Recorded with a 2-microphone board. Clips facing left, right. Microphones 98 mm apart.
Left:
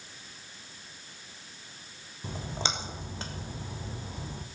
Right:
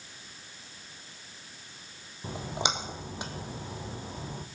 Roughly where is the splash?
Centre.